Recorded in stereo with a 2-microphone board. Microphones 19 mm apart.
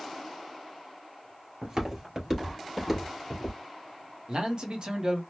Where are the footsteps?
35° right (ahead or behind), 1.8 m; by 3.6 s 5° right (ahead or behind), 2 m.